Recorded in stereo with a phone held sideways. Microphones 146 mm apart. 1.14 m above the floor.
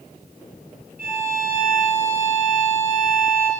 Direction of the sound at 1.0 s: 75° right (ahead or behind).